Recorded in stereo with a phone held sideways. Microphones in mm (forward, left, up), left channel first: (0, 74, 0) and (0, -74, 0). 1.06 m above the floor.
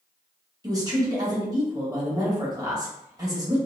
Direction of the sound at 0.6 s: 25° right (ahead or behind).